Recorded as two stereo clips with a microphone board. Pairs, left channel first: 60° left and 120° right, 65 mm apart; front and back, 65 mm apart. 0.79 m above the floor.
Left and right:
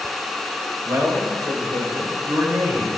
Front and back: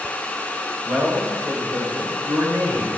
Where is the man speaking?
135° right, 3.5 m; by 2.9 s 165° right, 3.5 m.